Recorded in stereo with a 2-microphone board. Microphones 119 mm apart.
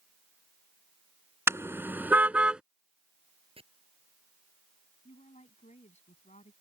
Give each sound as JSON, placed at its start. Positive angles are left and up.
{"t": 1.5, "sound": "a car horn", "side_deg": -25}
{"t": 3.6, "sound": "chopping", "side_deg": -55}
{"t": 5.0, "sound": "a woman speaking", "side_deg": 80}